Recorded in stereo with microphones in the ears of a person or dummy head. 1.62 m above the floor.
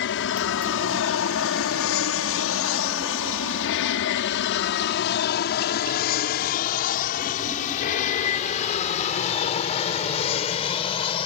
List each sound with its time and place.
0.0 s an aircraft: 60° left (ahead or behind); by 11.3 s 30° left (ahead or behind)